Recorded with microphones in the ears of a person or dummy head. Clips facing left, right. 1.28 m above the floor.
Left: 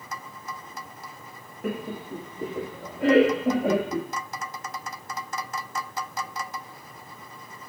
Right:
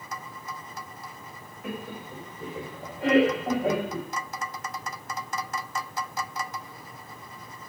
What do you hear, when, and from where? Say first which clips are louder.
1.6 s laughter: left 5 dB; 45° left (ahead or behind), 0.9 m; by 4.1 s 85° left, 2 m